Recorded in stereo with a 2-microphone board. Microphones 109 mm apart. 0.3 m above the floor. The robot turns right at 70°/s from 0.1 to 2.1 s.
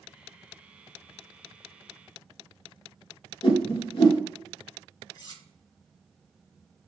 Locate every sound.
3.4 s a whoosh: 55° left (ahead or behind), 1.2 m
5.1 s cutlery clinking: 40° left (ahead or behind), 1.0 m